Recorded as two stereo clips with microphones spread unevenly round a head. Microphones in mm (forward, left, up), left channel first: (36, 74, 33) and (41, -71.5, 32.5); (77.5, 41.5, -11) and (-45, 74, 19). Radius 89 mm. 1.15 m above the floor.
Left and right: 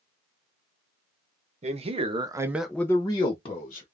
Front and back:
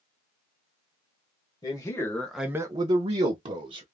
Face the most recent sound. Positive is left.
turn(degrees=130)